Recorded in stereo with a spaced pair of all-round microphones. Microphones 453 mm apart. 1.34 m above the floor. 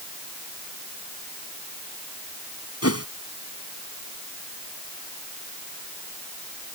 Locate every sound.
2.8 s a whoosh: 30° left (ahead or behind)